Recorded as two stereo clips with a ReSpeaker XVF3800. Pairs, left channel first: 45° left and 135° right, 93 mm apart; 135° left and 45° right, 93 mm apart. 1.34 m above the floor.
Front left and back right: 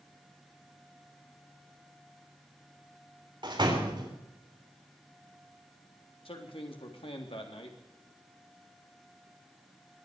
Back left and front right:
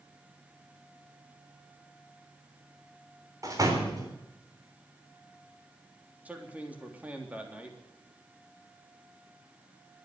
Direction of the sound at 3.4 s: 95° right.